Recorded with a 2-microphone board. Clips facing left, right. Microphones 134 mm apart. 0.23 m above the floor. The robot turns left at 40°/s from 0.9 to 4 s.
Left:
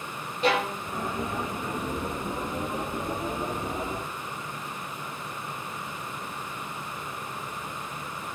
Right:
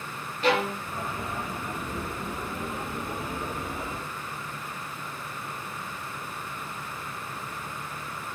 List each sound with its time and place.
0.4 s a violin: 20° left (ahead or behind), 1.7 m